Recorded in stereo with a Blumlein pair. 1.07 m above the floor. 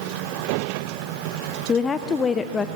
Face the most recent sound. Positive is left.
turn(degrees=20)